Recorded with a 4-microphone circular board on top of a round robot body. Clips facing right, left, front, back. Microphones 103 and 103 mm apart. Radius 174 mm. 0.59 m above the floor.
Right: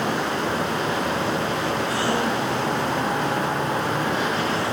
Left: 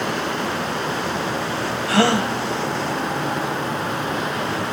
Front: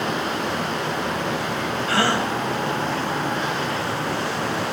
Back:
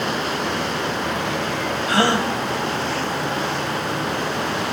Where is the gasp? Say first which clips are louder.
Left 9 dB, back 3 dB; 110° left, 4 m.